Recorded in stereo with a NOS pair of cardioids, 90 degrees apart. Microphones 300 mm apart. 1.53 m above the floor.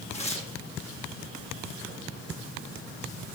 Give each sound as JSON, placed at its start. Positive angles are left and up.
{"t": 0.1, "sound": "tearing paper", "azimuth_deg": 20, "distance_m": 2.0}